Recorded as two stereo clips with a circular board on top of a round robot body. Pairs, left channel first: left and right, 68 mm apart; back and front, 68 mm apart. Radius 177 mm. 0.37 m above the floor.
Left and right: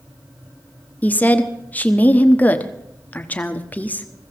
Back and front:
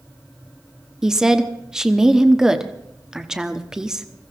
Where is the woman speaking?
70° left, 1.4 m.